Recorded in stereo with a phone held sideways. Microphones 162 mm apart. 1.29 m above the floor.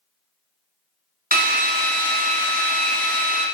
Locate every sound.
1.3 s a drill: 65° right (ahead or behind), 0.8 m